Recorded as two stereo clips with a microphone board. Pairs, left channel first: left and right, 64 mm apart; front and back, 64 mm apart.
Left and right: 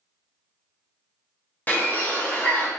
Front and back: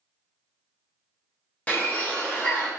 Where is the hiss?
No hiss in this recording.